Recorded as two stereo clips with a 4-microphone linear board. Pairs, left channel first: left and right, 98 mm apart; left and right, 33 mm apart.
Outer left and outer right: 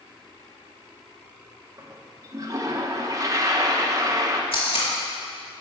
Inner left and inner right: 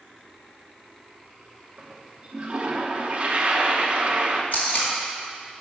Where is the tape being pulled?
65° left (ahead or behind), 2 m.